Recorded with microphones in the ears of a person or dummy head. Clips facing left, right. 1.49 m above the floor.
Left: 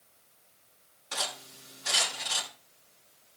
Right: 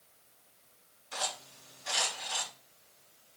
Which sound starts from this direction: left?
Cutlery clinking, at 1.1 s.